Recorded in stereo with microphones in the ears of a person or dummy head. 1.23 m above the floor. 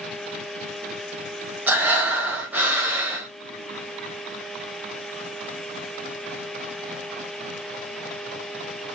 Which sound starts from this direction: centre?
Breathing, at 1.7 s.